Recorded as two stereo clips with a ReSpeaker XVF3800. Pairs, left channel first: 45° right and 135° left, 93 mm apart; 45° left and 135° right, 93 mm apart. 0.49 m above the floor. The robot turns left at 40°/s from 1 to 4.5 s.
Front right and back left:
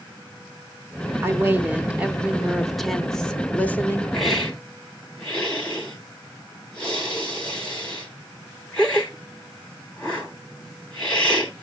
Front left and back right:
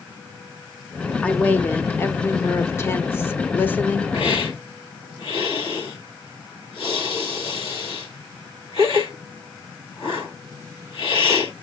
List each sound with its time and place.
1.2 s a woman speaking: 105° left, 1.0 m; by 4.0 s 10° right, 1.0 m
4.1 s a hiss: 45° left, 4 m; by 11.5 s 35° left, 4 m